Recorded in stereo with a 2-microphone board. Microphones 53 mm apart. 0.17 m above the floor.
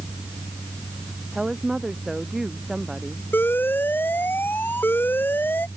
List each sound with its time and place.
1.3 s a woman speaking: 10° right (ahead or behind)
3.3 s an alarm: 40° left (ahead or behind)